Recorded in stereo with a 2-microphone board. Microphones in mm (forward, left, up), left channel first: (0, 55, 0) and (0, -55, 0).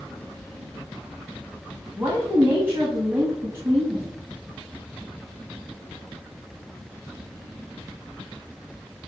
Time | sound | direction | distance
2.0 | a woman speaking | 20° right (ahead or behind) | 1.5 m